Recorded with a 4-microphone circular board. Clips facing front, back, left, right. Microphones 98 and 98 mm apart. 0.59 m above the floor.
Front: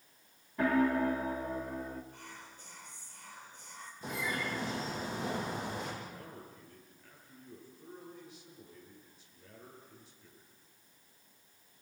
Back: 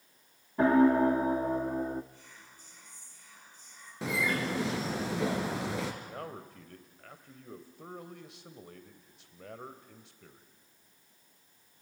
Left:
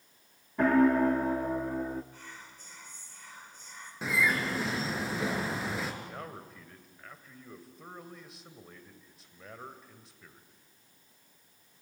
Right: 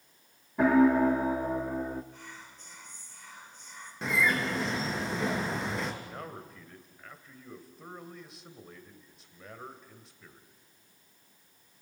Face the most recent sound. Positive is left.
turn(degrees=180)